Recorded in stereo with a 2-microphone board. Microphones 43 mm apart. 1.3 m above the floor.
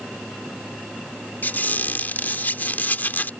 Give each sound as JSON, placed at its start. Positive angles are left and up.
{"t": 1.4, "sound": "a squeak", "side_deg": 40}